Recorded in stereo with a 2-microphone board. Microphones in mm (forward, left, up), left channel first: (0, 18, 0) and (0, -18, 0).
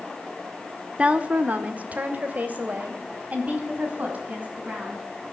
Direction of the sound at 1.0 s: 30° right (ahead or behind).